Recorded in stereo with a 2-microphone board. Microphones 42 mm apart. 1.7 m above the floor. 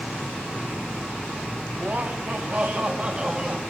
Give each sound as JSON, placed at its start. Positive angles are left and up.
{"t": 1.7, "sound": "laughter", "side_deg": -45, "distance_m": 5.0}